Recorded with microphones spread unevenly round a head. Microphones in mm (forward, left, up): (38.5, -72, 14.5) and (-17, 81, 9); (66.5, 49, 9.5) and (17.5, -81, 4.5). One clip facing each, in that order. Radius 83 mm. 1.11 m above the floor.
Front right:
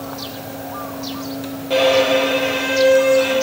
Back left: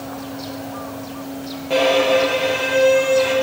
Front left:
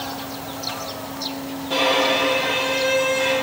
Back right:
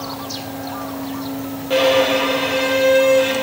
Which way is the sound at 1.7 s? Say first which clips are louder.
Front right 1 dB, back right 6 dB; 160° right.